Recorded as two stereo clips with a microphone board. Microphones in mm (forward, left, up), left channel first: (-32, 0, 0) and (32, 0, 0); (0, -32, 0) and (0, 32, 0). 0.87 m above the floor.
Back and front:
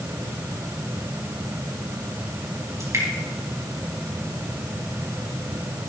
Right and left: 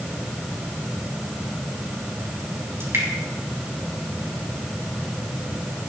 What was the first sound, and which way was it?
Dripping, 40° left.